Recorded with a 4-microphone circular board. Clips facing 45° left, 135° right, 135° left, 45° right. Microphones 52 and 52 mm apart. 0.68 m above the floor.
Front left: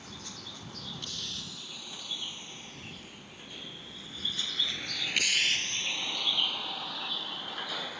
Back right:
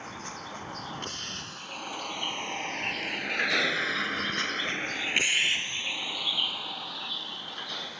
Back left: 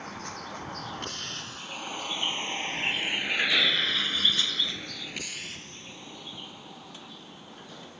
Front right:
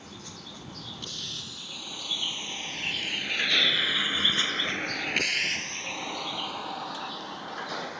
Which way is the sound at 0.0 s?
175° left.